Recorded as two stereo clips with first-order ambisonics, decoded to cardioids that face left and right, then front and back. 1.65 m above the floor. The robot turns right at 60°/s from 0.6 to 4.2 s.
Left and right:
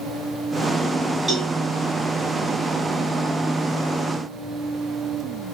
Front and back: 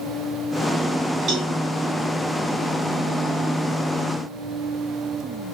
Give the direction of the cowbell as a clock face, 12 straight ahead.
5 o'clock.